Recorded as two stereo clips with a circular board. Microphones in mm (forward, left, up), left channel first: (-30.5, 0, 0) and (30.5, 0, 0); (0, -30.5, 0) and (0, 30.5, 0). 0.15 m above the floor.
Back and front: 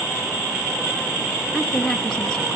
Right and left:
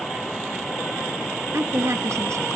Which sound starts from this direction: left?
A woman speaking, at 1.5 s.